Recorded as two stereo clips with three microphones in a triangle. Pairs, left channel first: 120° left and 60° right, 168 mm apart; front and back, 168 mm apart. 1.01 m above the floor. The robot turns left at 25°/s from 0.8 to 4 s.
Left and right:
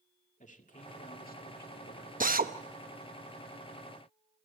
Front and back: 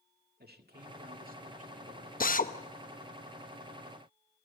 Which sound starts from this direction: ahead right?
A drill, at 2.2 s.